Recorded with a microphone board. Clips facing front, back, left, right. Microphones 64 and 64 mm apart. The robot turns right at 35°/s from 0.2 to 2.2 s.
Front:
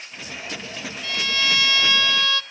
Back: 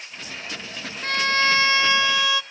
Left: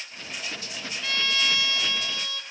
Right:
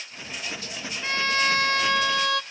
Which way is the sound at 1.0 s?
150° right.